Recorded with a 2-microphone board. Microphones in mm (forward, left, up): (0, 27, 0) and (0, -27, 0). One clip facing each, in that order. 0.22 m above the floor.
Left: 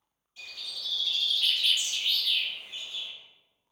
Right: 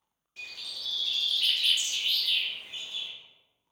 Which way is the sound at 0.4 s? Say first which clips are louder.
Even; 65° right (ahead or behind).